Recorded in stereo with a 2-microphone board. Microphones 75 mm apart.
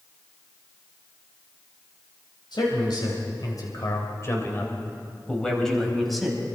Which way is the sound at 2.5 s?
75° left (ahead or behind).